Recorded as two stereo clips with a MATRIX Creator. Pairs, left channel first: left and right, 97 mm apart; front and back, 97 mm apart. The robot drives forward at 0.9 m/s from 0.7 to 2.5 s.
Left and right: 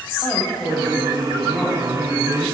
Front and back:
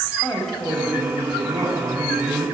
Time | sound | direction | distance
0.2 | a woman speaking | 85° left | 1.0 m